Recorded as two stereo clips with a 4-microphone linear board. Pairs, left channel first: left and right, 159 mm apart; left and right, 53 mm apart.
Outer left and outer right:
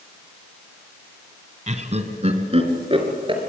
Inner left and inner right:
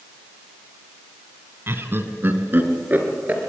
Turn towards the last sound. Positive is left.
turn(degrees=-35)  # may be behind; listen again after turning